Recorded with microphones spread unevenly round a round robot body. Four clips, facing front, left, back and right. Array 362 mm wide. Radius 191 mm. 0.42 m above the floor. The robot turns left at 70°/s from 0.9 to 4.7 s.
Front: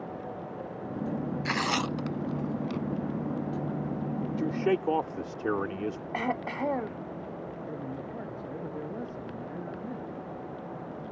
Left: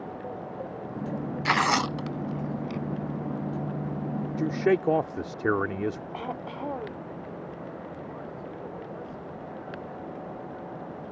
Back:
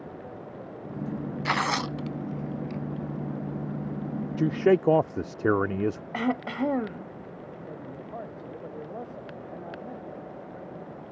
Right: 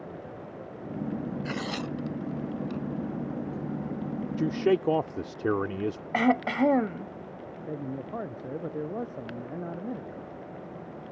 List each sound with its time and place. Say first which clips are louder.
1.4 s tearing paper: left 8 dB, back 4 dB; 110° left; by 2.8 s 15° left
4.4 s a man speaking: left 1 dB, back 6 dB; 165° right; by 6.0 s 170° left
6.1 s throat clearing: right 10 dB, back 1 dB; 120° right
7.7 s a man speaking: right 3 dB, front 1 dB; 75° right